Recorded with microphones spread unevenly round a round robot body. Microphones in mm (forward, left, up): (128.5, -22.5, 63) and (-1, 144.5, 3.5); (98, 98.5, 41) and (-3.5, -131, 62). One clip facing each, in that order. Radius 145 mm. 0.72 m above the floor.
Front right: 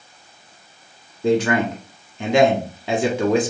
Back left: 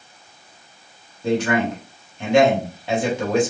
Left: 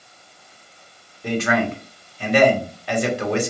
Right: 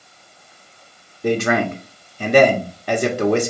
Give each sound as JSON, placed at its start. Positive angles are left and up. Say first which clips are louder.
{"t": 1.2, "sound": "a man speaking", "louder": "front right 2 dB, right 3 dB", "azimuth_deg": -70, "distance_m": 1.5}